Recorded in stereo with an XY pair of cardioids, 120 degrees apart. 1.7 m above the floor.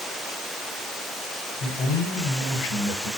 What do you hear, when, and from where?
1.6 s a man speaking: 70° left, 7.5 m